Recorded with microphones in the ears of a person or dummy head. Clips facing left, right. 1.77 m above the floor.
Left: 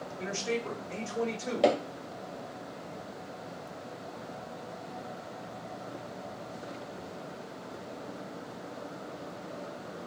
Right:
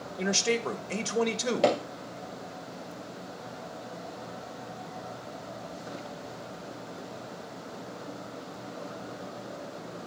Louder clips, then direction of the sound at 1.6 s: Even; 5° right (ahead or behind).